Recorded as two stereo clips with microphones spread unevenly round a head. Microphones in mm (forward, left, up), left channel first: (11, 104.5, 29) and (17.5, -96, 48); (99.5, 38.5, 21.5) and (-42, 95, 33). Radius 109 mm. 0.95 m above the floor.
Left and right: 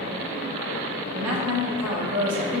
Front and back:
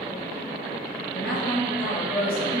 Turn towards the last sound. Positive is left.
turn(degrees=-105)